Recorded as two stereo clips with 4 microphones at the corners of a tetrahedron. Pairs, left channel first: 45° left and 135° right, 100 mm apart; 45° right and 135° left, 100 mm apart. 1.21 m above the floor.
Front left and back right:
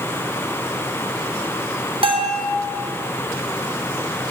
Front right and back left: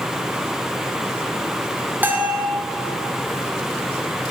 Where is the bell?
155° right, 0.7 m.